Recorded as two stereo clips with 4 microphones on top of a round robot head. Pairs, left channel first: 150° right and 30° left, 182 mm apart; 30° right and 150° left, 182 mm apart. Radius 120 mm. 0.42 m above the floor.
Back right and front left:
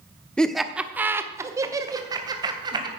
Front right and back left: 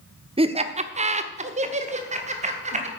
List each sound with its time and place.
0.4 s laughter: 130° left, 0.9 m; by 2.9 s 100° left, 2.5 m